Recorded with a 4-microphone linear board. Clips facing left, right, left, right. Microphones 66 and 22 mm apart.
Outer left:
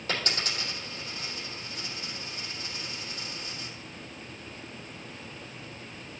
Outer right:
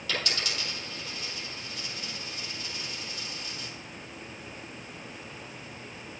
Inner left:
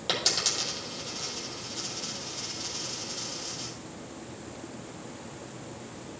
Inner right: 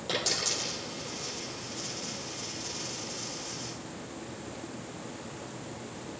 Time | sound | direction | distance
0.1 | a dropped coin | 35° left (ahead or behind) | 3.5 m